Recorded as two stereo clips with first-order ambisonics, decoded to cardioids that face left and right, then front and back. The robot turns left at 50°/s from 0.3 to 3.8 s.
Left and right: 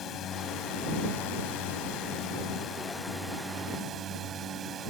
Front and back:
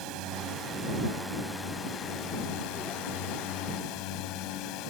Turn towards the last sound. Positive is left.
turn(degrees=-30)